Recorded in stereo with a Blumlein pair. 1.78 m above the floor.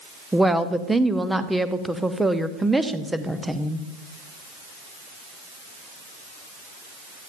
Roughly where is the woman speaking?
Ahead.